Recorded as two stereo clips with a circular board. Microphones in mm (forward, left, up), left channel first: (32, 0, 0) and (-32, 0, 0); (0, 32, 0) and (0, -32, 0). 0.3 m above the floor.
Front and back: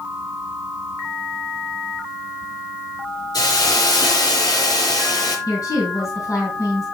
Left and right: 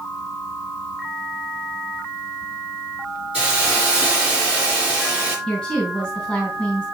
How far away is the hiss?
About 3.5 m.